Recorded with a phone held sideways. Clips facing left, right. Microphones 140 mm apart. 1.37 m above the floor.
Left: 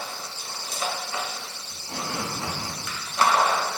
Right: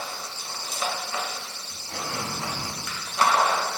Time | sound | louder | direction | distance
1.7 | tape being pulled | left 1 dB | 20° left (ahead or behind) | 5 m